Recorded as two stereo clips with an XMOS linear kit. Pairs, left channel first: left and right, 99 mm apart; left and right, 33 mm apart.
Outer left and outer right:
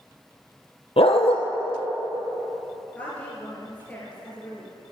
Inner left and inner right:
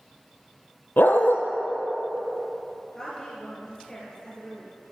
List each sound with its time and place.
1.0 s a dog barking: 80° left, 1.4 m
3.0 s a woman speaking: 15° left (ahead or behind), 3 m